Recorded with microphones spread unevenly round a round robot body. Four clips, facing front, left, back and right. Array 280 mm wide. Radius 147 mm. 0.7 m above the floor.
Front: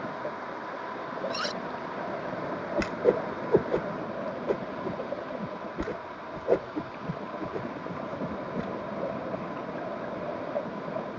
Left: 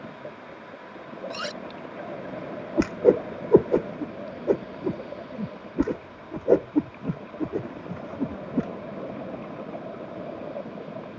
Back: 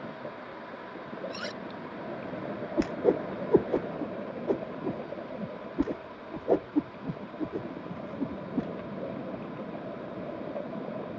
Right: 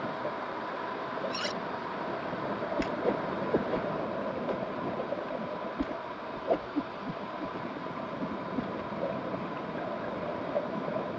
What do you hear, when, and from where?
1.3 s cutlery clinking: 30° left
2.8 s a whoosh: 105° left